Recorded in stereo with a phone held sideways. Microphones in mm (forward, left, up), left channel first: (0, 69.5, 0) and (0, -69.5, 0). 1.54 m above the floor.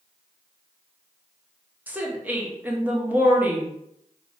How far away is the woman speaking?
About 0.7 m.